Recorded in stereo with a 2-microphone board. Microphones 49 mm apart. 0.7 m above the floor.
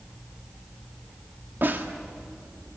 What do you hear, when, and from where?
1.6 s a snare drum: 40° right (ahead or behind), 1.7 m